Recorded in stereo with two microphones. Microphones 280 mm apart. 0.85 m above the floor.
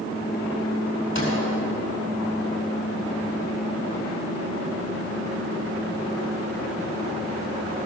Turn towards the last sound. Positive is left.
turn(degrees=45)  # may be behind; listen again after turning